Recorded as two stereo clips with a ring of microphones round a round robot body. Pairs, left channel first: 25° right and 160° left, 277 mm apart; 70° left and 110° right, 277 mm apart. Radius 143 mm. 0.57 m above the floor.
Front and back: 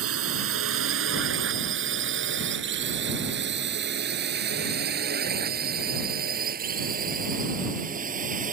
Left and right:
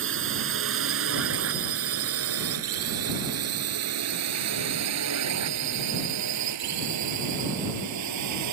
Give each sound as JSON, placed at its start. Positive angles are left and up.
{"t": 0.0, "sound": "a drone", "azimuth_deg": -160}